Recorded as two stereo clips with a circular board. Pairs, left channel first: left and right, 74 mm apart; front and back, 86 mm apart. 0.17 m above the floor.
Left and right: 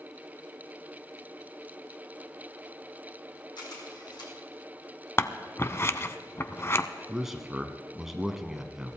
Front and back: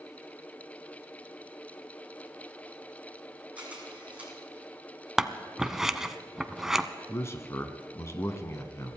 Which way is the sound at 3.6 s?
105° left.